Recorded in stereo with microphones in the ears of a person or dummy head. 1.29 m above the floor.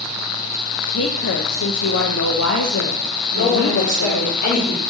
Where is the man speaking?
60° left (ahead or behind), 3 m.